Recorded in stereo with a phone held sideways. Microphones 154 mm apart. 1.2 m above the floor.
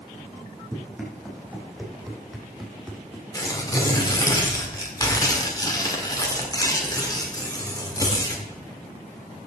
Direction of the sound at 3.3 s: 25° left (ahead or behind).